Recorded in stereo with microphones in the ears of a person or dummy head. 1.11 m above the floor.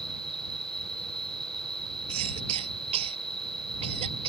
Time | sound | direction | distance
0.0 | an insect | 5° left (ahead or behind) | ?
2.1 | a cough | 35° right (ahead or behind) | ?